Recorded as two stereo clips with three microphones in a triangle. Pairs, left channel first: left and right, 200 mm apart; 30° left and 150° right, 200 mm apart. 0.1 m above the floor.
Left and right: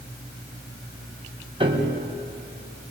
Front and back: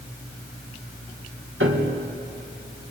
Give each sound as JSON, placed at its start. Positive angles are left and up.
{"t": 1.6, "sound": "a piano", "azimuth_deg": -155, "distance_m": 4.5}